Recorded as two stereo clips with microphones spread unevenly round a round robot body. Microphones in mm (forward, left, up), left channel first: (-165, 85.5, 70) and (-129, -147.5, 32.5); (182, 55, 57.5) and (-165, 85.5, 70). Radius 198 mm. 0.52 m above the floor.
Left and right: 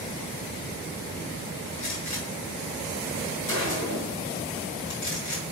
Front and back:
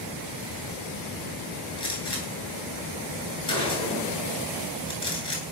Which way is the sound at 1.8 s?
70° left.